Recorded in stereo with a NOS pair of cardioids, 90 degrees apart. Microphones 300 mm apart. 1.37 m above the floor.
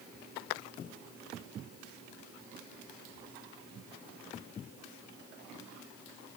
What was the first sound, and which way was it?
Only background noise.